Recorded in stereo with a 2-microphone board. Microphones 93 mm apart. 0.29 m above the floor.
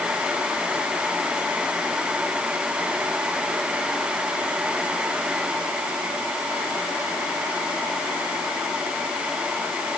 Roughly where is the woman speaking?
No woman speaking in this recording.